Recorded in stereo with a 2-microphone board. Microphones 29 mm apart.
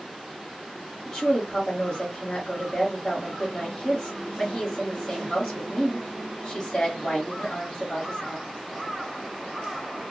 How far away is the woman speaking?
About 1.3 m.